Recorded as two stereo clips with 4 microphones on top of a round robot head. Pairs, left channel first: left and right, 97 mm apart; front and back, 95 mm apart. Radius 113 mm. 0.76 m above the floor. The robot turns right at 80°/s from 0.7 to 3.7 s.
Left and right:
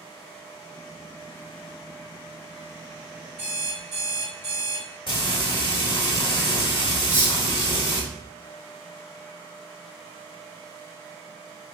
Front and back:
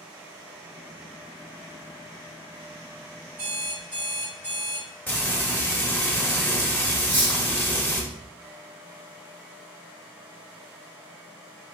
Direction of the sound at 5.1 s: 70° left.